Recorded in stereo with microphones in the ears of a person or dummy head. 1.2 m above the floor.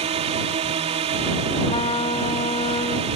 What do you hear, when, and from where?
0.0 s a drone: 30° right (ahead or behind)
1.6 s a trumpet: 25° left (ahead or behind)